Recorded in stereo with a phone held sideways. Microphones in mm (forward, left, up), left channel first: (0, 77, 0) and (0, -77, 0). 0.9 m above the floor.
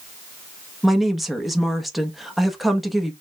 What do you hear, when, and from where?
0.8 s a woman speaking: centre (ahead or behind), 1.0 m